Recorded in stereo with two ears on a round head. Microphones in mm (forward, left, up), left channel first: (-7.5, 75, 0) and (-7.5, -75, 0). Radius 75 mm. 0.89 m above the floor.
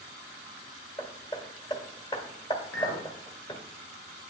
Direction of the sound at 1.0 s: 25° left (ahead or behind).